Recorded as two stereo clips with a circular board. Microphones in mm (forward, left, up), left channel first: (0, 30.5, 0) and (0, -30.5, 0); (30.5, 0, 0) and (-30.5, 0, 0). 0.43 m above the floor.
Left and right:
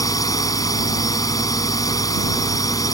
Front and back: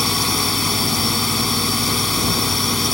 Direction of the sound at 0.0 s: 90° left.